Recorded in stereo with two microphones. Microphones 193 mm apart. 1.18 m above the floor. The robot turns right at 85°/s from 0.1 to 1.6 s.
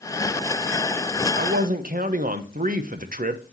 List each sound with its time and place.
1.4 s a man speaking: 60° right (ahead or behind), 0.7 m; by 3.5 s 45° right (ahead or behind), 0.7 m